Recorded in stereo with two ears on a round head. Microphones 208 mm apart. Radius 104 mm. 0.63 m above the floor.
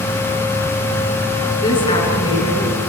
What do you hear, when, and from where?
1.6 s a woman speaking: 20° left (ahead or behind), 7.5 m